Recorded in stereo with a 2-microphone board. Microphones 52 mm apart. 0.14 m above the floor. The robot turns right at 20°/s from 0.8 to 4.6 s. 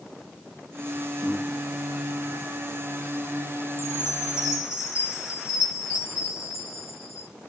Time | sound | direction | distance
1.2 | breathing | 25° left (ahead or behind) | 9 m
3.8 | a chime | 80° left | 10 m